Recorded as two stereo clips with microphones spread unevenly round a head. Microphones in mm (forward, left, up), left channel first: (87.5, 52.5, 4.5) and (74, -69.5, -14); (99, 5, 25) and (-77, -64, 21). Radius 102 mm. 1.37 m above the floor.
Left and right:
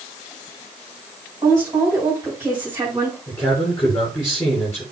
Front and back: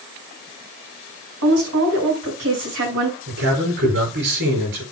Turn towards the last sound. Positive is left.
turn(degrees=160)